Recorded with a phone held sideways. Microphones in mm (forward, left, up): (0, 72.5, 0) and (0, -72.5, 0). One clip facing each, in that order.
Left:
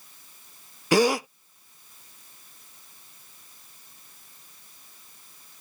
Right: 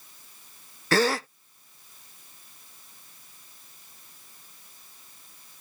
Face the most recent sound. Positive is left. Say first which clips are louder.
# left 3 dB
turn(degrees=15)  # may be behind; listen again after turning